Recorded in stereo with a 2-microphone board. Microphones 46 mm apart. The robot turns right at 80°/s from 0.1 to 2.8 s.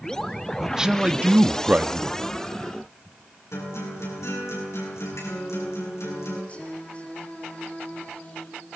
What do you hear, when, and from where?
0.6 s a man speaking: 175° right, 0.9 m; by 2.2 s 40° right, 0.9 m
3.5 s a guitar: 85° left, 9.5 m
6.5 s singing: 30° left (ahead or behind), 5.5 m